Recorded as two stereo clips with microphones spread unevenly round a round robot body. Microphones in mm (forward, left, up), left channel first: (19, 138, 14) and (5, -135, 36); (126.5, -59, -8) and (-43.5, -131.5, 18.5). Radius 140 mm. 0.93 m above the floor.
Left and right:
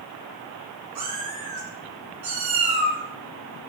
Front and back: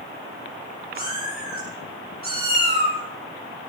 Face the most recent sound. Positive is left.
turn(degrees=-125)